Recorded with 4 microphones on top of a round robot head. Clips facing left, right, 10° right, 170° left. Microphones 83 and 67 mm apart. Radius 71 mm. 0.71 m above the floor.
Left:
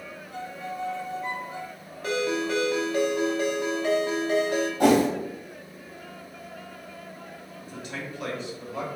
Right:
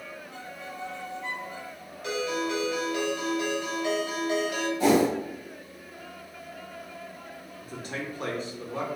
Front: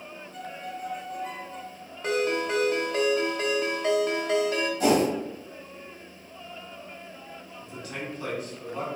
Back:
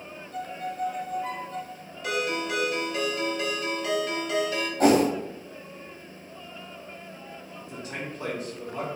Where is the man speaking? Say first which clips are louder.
Right 1 dB, even; 130° right, 1.4 m.